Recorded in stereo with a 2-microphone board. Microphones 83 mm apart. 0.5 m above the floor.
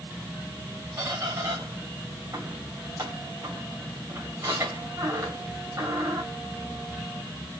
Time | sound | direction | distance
1.0 | a squeak | 45° right (ahead or behind) | 2.5 m